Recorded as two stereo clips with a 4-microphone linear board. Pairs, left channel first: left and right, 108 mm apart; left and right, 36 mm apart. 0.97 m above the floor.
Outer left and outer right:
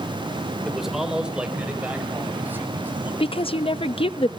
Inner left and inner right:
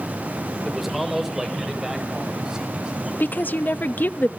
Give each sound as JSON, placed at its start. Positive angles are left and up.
{"t": 0.7, "sound": "a man speaking", "side_deg": 0, "distance_m": 3.0}
{"t": 3.2, "sound": "a woman speaking", "side_deg": 55, "distance_m": 0.7}